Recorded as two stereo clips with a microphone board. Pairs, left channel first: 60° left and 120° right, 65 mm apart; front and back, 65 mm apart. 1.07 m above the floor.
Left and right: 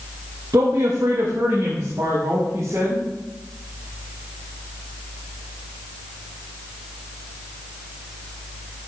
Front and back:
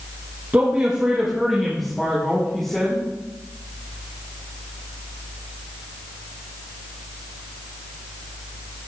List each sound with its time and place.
0.5 s a man speaking: 125° right, 1.5 m; by 3.0 s 80° right, 3.5 m